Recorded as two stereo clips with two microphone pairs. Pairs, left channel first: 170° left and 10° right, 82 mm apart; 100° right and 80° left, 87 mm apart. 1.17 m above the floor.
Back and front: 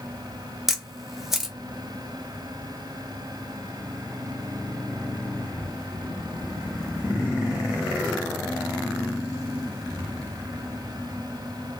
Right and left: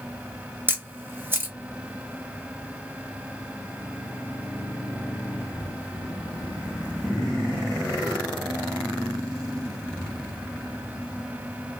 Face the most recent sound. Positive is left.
turn(degrees=75)